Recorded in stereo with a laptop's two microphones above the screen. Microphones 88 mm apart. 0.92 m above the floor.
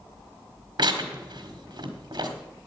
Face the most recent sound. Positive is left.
turn(degrees=-60)  # may be behind; listen again after turning